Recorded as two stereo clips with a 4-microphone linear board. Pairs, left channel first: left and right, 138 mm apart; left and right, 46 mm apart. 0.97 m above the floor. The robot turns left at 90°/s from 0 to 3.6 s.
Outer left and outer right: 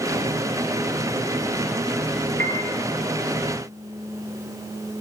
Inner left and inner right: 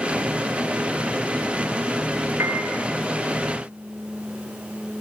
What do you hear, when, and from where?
2.4 s a piano: 80° right, 6 m; by 2.7 s 50° right (ahead or behind), 6 m